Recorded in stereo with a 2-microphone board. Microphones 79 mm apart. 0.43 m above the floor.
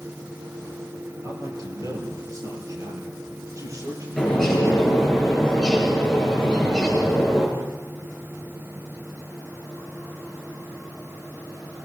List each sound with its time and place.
1.2 s a man speaking: 50° right (ahead or behind), 8.5 m; by 5.2 s 40° right (ahead or behind), 11.5 m
4.2 s a bird: 5° left (ahead or behind), 8.5 m